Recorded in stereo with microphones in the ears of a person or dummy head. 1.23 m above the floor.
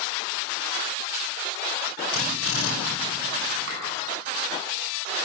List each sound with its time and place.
2.1 s a drill: 80° left, 5 m
3.7 s a clap: 75° right (ahead or behind), 9.5 m